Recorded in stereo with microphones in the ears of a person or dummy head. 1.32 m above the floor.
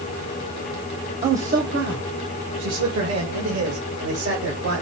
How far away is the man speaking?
About 0.9 m.